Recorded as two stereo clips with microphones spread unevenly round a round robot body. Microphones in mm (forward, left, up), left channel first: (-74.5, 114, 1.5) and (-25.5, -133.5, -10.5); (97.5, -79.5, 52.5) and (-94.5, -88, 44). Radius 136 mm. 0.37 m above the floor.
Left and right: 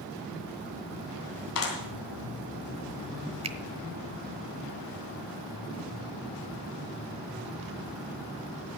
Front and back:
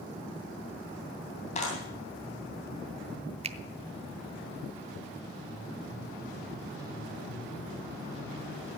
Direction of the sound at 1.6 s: 65° left.